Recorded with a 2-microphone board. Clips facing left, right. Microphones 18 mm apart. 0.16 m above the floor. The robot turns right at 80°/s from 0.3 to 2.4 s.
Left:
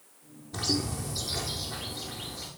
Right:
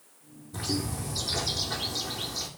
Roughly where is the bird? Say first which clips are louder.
Left 2 dB; behind left.